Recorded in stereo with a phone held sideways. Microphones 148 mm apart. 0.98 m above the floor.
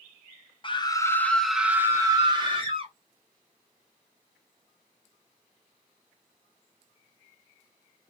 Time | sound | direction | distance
0.6 | a scream | 35° left (ahead or behind) | 0.7 m